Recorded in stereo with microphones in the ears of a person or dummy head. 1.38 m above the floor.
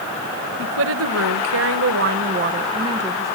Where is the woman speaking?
65° right (ahead or behind), 1.6 m; by 3.4 s 10° right (ahead or behind), 1.9 m.